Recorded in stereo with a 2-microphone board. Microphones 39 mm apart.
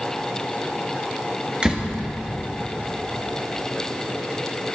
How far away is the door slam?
About 1.6 m.